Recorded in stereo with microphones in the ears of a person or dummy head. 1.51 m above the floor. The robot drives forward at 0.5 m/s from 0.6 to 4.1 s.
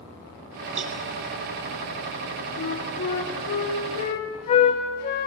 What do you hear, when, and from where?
0.8 s a cowbell: 35° right (ahead or behind), 0.9 m; by 1.0 s 40° right (ahead or behind), 0.9 m
2.6 s a flute: 55° left (ahead or behind), 3 m; by 5.3 s 45° left (ahead or behind), 3 m